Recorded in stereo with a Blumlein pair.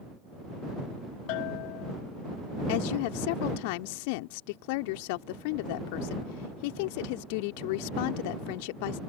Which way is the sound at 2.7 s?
45° left.